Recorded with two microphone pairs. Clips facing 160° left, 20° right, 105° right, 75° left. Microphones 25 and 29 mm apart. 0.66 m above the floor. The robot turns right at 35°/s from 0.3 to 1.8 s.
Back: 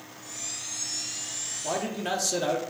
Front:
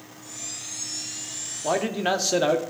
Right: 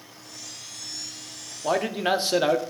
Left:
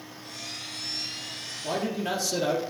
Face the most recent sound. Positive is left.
turn(degrees=-75)